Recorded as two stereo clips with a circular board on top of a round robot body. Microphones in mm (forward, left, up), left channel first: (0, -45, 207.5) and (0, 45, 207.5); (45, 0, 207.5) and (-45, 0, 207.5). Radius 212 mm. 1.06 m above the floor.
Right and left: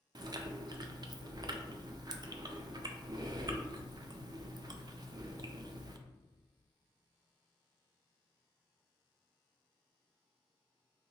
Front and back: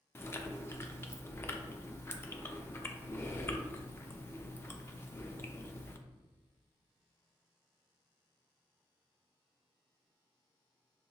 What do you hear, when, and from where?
0.1 s chewing: 60° left, 0.5 m